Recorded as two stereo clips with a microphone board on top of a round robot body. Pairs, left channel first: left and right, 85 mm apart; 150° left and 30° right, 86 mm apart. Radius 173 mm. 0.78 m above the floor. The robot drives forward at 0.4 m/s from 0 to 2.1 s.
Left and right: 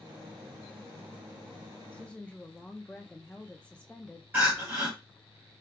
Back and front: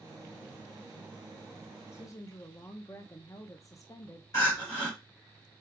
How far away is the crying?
About 3 m.